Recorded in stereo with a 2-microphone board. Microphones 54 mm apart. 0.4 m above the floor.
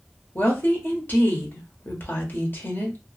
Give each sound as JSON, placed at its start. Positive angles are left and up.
{"t": 0.3, "sound": "a woman speaking", "side_deg": 40, "distance_m": 1.0}